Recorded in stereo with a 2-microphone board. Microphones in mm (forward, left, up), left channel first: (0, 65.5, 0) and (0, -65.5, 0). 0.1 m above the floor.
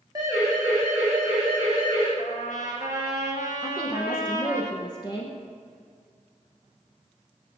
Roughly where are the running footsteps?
I don't hear running footsteps.